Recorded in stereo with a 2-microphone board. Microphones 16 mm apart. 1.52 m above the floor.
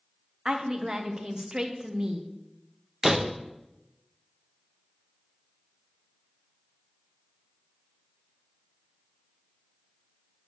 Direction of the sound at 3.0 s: 30° right (ahead or behind).